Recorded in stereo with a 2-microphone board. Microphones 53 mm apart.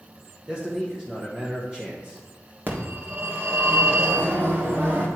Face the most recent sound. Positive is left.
turn(degrees=-40)  # may be behind; listen again after turning